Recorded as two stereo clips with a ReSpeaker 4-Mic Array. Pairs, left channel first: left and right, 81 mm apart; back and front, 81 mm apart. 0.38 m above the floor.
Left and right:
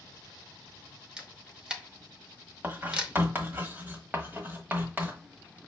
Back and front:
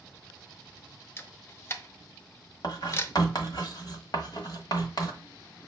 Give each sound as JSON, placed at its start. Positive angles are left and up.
{"t": 1.2, "sound": "a camera shutter", "azimuth_deg": -160, "distance_m": 0.7}
{"t": 2.6, "sound": "writing", "azimuth_deg": -155, "distance_m": 1.1}